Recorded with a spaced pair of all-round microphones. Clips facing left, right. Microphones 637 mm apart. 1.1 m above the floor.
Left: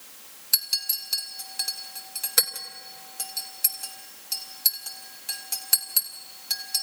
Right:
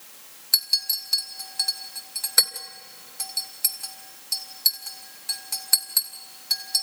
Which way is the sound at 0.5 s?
50° left (ahead or behind).